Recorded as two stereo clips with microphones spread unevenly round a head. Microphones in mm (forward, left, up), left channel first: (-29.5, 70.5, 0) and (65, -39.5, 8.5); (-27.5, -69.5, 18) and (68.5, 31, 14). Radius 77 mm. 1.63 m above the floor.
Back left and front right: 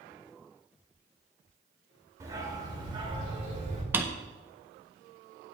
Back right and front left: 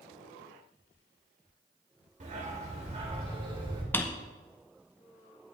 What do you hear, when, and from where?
2.2 s a dog barking: 15° left, 2.5 m; by 3.8 s 10° right, 3 m
3.9 s a drawer: 85° right, 0.7 m